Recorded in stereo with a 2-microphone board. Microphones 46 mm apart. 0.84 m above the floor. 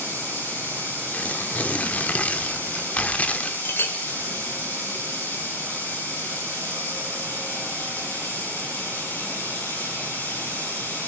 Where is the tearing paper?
30° left (ahead or behind), 1.2 m.